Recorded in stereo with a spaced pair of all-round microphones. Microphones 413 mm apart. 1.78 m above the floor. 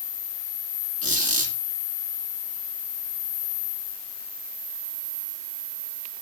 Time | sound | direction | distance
1.0 | a squeak | 30° right (ahead or behind) | 5.5 m